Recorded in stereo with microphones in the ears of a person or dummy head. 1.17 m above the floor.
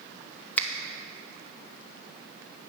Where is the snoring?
I don't hear snoring.